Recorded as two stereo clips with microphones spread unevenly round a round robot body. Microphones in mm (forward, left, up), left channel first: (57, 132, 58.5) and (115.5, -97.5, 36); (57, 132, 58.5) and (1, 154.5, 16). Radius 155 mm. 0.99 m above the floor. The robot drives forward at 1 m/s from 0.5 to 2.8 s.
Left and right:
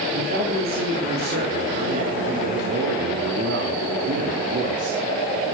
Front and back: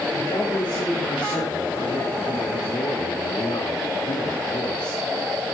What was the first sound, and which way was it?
A man speaking, 25° right.